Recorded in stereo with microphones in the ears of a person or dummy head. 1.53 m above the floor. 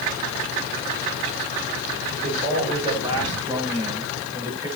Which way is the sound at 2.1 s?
30° right (ahead or behind).